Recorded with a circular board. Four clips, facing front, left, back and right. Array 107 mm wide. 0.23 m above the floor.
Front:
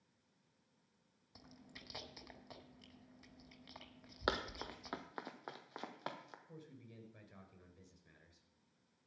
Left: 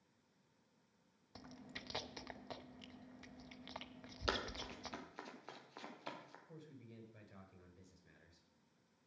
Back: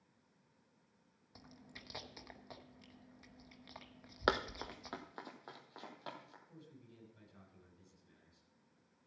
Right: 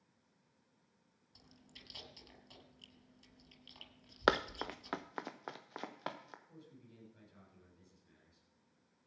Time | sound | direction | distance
1.4 | chewing | 100° left | 0.9 m
4.3 | running footsteps | 110° right | 0.9 m
6.5 | a man speaking | 25° left | 3.5 m